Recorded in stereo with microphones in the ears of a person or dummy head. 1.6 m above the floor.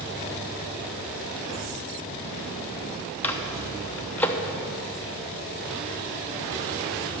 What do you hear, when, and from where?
3.2 s a microwave: 10° left (ahead or behind), 0.8 m